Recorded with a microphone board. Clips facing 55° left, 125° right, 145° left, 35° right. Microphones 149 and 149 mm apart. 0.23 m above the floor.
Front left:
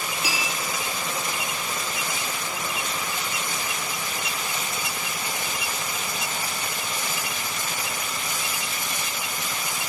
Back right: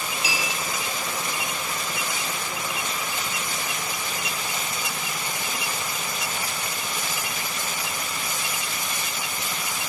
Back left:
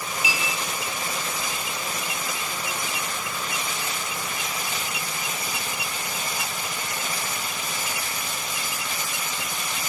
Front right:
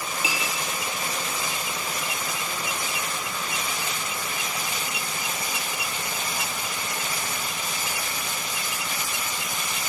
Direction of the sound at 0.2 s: 25° left.